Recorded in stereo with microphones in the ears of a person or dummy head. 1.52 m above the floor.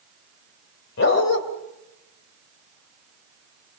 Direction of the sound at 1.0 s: 65° left (ahead or behind).